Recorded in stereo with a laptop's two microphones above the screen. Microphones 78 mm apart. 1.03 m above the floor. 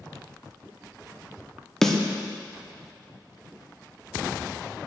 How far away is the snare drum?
About 0.6 m.